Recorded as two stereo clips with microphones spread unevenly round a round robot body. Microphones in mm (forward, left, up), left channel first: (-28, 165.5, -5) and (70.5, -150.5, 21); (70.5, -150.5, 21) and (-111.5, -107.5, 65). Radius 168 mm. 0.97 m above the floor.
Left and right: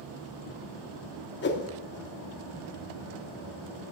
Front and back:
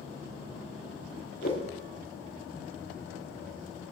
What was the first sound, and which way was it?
A whoosh, 45° left.